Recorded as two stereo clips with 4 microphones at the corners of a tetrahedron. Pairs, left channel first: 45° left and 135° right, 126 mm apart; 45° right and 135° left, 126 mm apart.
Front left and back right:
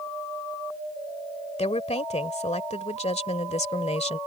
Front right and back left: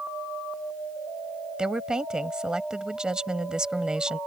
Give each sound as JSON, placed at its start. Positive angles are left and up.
{"t": 1.6, "sound": "a woman speaking", "azimuth_deg": 55}